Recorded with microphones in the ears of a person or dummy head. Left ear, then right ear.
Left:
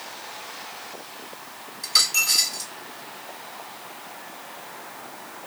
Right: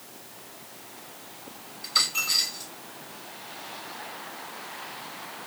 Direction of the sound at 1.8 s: 60° left (ahead or behind).